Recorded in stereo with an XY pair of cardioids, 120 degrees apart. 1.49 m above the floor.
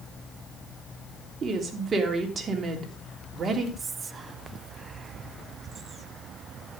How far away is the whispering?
About 1.1 m.